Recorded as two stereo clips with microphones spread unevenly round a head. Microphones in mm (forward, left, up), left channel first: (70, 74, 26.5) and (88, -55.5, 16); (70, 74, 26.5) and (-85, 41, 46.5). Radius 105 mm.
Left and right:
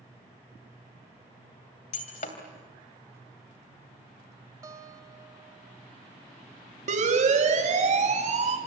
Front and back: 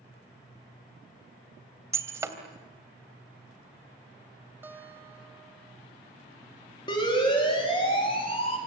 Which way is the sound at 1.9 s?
125° left.